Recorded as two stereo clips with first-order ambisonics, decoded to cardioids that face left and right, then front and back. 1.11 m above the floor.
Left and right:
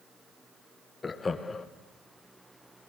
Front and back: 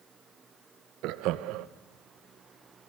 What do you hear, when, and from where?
1.0 s laughter: 165° left, 1.0 m